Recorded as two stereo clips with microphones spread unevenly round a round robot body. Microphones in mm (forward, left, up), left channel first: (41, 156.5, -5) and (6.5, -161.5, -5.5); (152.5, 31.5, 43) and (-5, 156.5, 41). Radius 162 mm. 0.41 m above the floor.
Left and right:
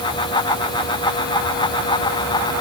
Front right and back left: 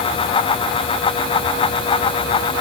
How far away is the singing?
I don't hear singing.